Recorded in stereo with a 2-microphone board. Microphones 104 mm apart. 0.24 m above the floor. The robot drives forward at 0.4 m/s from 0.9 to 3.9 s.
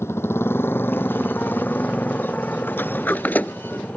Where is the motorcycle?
25° left (ahead or behind); by 4.0 s 15° left (ahead or behind).